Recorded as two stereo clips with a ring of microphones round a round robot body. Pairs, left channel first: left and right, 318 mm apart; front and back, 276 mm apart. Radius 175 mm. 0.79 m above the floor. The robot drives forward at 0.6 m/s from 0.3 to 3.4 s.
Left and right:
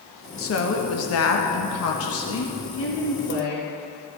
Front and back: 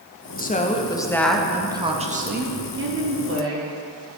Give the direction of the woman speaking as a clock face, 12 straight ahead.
10 o'clock.